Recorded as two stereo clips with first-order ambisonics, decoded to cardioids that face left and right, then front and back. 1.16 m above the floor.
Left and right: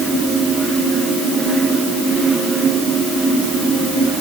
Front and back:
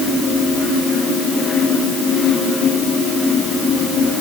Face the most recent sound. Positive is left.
No sound to turn to.